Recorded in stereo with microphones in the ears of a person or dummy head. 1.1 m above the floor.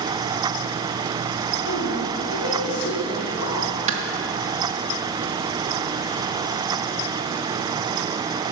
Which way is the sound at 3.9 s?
35° right (ahead or behind).